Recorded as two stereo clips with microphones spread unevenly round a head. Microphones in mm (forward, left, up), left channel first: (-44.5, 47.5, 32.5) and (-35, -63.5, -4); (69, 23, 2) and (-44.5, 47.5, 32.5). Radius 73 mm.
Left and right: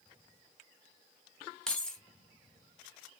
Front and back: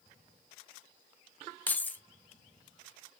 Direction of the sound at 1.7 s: 80° left.